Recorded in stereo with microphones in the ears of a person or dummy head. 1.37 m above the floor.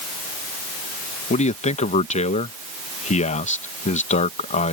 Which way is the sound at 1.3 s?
40° left (ahead or behind).